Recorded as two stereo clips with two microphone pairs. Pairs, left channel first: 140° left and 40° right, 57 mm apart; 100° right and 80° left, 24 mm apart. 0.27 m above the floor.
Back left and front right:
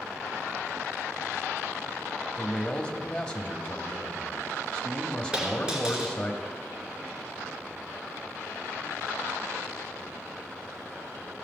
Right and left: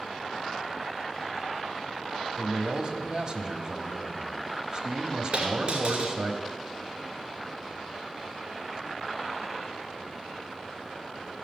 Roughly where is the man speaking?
Left.